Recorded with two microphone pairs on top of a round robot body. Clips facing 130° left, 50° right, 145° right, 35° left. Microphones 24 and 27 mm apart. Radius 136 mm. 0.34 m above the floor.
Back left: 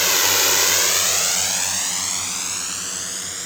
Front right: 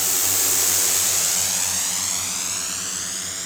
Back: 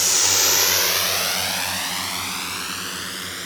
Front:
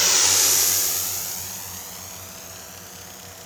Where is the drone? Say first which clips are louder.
Back left 6 dB, even; 105° left; by 3.5 s 145° right.